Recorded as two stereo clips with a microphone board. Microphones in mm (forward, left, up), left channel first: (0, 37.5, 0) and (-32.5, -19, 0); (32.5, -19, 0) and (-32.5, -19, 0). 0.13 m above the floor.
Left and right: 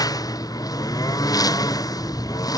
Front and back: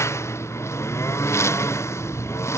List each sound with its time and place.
0.0 s a lawn mower: 45° left